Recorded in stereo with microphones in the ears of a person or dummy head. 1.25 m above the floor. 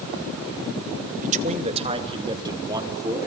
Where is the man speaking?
40° right (ahead or behind), 1.9 m; by 3.3 s 15° right (ahead or behind), 4 m.